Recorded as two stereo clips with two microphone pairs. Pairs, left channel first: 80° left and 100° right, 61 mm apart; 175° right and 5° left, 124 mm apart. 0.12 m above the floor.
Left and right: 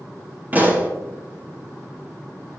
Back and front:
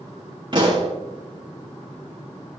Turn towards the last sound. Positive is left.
turn(degrees=-40)